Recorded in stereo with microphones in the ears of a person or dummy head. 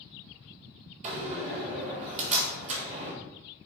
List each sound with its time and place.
1.0 s a door slam: 35° right (ahead or behind), 1.4 m